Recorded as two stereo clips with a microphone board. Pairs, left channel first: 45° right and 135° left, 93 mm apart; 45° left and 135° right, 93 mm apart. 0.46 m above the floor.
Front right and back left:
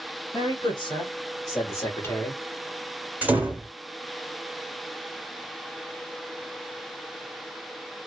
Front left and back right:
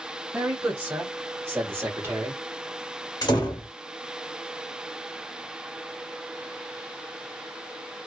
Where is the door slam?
65° left, 1.1 m.